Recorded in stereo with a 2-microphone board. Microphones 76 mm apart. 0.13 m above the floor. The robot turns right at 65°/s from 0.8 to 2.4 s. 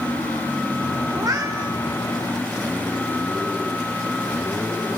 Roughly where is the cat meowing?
Behind right.